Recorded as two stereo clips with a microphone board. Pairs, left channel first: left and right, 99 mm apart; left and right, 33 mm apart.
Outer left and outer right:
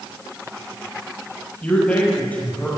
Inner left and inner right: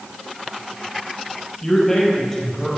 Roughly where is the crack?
No crack in this recording.